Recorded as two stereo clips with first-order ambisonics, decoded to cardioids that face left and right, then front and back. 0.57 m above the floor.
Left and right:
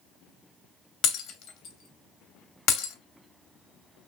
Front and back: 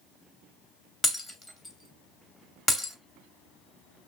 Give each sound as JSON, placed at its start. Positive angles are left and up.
{"t": 1.0, "sound": "breaking glass", "azimuth_deg": 70, "distance_m": 0.7}